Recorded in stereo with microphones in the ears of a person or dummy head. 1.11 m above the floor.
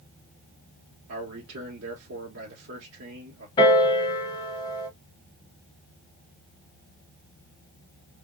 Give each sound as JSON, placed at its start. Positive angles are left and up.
{"t": 1.1, "sound": "a man speaking", "side_deg": -65, "distance_m": 1.2}
{"t": 3.6, "sound": "a piano", "side_deg": 25, "distance_m": 2.0}